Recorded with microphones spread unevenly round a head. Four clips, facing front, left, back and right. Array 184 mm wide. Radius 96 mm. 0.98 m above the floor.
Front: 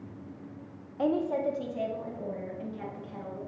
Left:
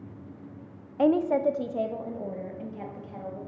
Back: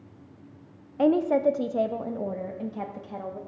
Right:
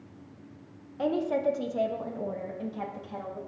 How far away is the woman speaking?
About 0.5 m.